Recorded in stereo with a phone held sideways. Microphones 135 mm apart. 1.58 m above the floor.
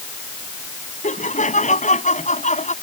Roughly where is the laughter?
Left.